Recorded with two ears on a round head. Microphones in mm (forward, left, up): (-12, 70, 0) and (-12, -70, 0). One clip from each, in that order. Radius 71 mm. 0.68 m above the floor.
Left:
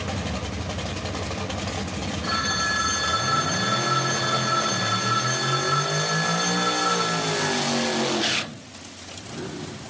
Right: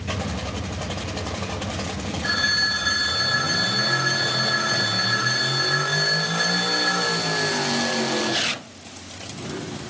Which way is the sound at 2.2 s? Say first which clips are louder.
Right 4 dB; 5° left (ahead or behind).